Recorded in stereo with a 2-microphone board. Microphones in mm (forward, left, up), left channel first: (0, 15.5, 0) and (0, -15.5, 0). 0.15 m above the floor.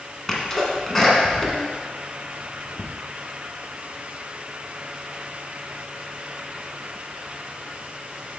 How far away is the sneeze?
About 1.6 m.